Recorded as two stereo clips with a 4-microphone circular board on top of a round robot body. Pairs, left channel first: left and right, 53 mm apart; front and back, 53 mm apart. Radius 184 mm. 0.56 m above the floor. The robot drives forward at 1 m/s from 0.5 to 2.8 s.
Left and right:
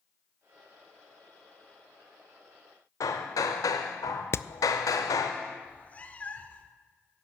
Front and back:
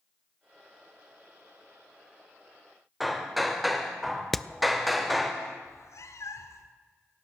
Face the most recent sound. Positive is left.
turn(degrees=25)